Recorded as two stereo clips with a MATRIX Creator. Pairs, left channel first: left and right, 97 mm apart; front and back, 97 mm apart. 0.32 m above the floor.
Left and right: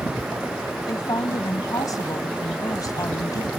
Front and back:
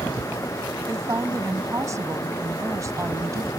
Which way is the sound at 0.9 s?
130° left.